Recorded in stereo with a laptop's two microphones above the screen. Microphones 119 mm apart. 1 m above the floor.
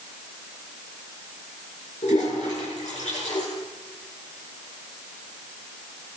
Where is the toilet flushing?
75° left (ahead or behind), 5.5 m.